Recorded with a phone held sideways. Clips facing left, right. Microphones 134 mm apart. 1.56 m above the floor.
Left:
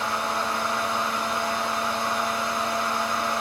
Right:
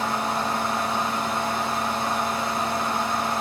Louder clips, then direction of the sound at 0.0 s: Right 2 dB; 40° right (ahead or behind).